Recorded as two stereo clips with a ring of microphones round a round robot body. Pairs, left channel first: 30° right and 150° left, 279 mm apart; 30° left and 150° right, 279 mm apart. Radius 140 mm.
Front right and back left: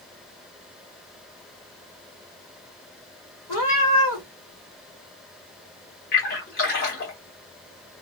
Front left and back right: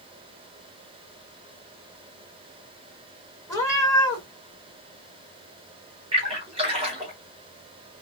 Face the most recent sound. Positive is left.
turn(degrees=-80)